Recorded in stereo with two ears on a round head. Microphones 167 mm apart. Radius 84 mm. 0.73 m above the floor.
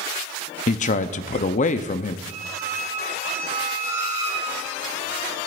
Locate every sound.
0.7 s a man speaking: 40° left (ahead or behind), 0.7 m
2.3 s a squeak: 15° right (ahead or behind), 5 m